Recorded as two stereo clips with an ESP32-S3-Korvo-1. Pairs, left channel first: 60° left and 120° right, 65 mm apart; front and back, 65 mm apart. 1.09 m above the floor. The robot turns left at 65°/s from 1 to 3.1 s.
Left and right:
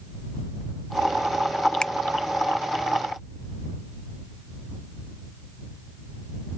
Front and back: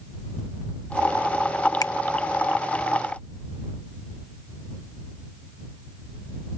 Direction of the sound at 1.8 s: 15° right.